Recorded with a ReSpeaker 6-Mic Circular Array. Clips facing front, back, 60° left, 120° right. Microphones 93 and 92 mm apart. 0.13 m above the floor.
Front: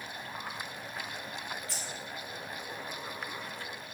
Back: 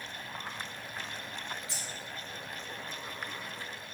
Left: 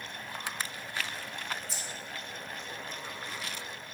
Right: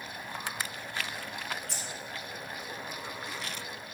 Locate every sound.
1.7 s keys jangling: 115° right, 2.5 m